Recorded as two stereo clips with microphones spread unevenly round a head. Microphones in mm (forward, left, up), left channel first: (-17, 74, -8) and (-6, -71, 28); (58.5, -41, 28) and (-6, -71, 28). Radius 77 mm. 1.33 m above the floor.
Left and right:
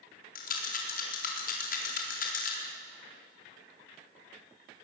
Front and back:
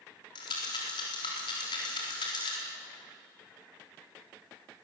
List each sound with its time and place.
0.3 s a rattle: 60° left, 4 m